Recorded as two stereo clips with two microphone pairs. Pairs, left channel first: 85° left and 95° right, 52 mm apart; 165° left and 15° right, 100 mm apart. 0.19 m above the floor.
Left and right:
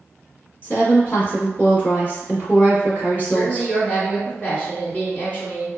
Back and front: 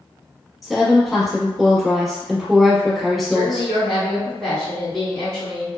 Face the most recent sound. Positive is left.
turn(degrees=85)